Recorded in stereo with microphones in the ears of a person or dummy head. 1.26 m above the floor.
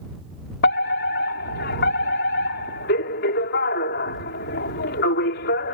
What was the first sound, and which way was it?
A fire alarm, 55° left (ahead or behind).